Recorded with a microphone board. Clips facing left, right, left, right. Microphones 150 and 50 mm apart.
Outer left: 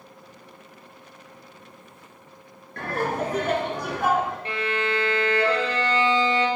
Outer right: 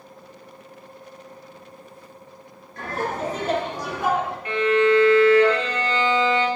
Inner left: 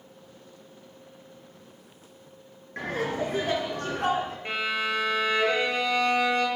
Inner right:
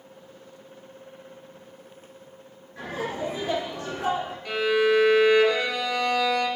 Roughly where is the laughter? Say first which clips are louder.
Outer left 1 dB, inner left 2 dB; left.